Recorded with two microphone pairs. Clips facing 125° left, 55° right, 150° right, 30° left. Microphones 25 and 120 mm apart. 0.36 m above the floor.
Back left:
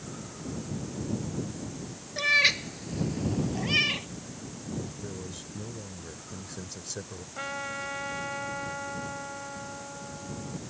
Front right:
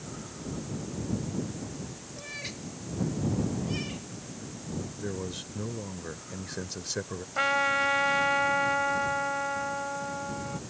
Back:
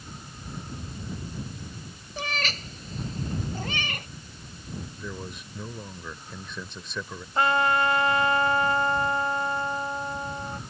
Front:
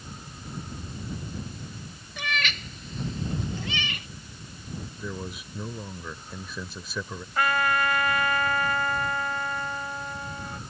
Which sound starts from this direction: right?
A trumpet, at 7.3 s.